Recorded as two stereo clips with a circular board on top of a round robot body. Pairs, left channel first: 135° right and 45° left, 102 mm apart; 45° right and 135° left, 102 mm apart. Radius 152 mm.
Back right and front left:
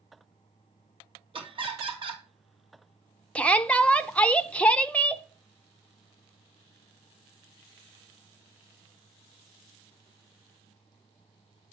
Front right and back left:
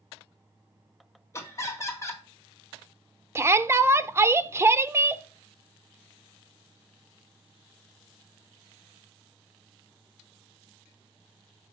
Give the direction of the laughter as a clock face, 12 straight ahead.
11 o'clock.